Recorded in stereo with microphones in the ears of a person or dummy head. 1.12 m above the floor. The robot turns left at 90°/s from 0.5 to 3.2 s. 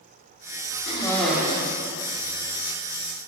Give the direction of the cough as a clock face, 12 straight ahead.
11 o'clock.